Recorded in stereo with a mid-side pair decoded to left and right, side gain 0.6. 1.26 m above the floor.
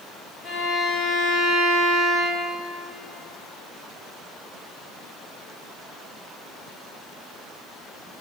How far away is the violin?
About 1.8 m.